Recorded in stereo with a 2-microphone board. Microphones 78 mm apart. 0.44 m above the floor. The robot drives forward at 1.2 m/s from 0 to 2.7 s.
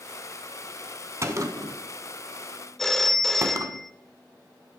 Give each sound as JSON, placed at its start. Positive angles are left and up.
{"t": 1.2, "sound": "a gunshot", "side_deg": -40, "distance_m": 1.3}
{"t": 2.8, "sound": "a phone ringing", "side_deg": 5, "distance_m": 0.6}